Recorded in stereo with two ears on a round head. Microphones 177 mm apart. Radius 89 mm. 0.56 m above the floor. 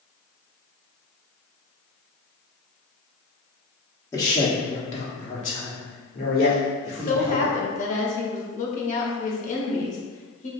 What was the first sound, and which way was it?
A man speaking, 15° left (ahead or behind).